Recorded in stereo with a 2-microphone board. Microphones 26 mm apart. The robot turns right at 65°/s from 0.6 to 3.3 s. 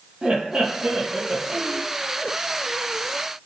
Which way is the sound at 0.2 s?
150° right.